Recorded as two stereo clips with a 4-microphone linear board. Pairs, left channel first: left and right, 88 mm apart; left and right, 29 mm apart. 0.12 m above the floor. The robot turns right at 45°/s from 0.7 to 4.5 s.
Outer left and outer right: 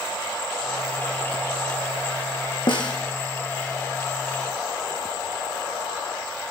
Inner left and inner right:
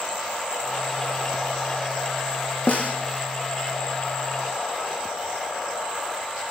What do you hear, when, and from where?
2.7 s a snare drum: 65° left (ahead or behind), 1.2 m; by 3.0 s 50° left (ahead or behind), 1.2 m